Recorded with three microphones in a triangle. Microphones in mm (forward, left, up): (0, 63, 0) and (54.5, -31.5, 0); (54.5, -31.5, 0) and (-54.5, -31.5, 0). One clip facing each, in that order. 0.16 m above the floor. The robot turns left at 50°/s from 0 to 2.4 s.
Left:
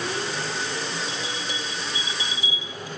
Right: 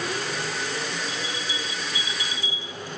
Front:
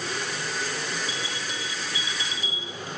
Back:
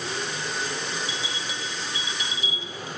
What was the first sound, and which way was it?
A bell, 110° left.